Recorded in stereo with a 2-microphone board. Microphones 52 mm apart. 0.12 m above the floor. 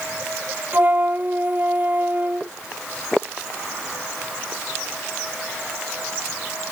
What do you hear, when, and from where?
0.7 s a flute: 40° right (ahead or behind)